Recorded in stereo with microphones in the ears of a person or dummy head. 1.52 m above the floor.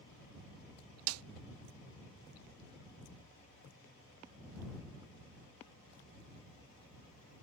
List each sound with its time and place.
1.1 s a snare drum: 75° right (ahead or behind)